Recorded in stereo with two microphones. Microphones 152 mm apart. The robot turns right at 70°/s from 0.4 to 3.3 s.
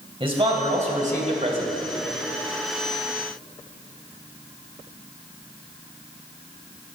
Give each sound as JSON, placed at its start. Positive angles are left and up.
{"t": 0.2, "sound": "a man speaking", "azimuth_deg": -135, "distance_m": 1.9}